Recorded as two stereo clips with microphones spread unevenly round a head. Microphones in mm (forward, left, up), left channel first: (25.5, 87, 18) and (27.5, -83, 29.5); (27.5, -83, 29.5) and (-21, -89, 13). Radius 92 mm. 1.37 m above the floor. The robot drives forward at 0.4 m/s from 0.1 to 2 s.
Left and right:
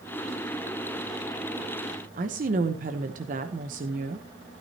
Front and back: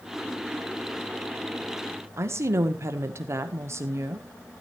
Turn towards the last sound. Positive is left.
turn(degrees=-140)